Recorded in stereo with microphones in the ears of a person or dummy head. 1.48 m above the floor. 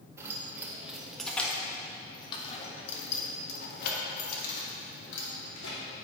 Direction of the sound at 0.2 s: 15° right (ahead or behind).